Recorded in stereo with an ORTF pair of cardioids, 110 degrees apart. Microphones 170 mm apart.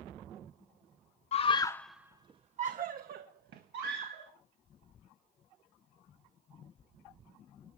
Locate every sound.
1.3 s a scream: 40° left, 0.9 m; by 4.3 s 75° right, 2.5 m